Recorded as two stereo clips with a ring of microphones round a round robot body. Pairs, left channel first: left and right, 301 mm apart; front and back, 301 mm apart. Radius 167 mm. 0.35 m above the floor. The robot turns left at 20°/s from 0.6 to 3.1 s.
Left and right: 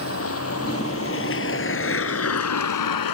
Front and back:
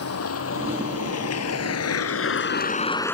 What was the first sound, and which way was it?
A vehicle, 45° left.